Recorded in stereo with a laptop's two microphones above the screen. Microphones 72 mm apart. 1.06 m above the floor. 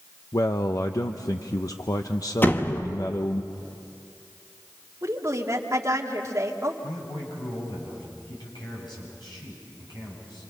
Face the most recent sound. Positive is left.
turn(degrees=80)